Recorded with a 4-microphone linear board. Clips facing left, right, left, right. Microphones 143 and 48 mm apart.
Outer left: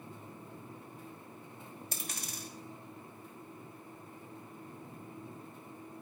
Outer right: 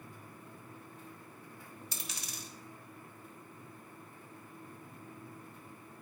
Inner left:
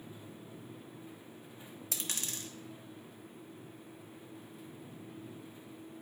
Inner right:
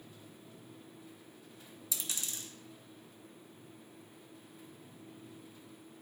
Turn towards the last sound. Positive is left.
turn(degrees=50)  # may be behind; listen again after turning